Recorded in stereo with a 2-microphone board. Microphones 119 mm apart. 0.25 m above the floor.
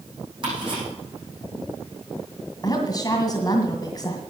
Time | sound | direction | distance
0.4 | ticking | 45° right (ahead or behind) | 7.5 m
2.6 | a woman speaking | 35° left (ahead or behind) | 1.9 m